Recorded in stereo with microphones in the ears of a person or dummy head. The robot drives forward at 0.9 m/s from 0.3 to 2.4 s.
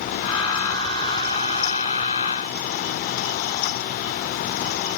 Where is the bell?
I don't hear a bell.